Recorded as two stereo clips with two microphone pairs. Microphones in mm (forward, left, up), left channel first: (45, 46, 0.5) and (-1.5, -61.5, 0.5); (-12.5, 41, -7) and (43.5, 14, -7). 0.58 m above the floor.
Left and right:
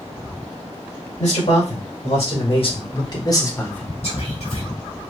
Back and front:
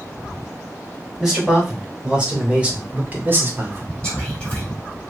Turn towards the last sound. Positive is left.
turn(degrees=80)